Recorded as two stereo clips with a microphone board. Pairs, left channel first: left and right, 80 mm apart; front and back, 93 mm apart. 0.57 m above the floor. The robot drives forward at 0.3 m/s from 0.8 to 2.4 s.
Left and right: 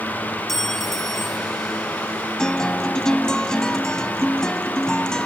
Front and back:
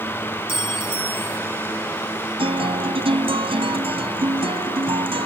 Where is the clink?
175° left.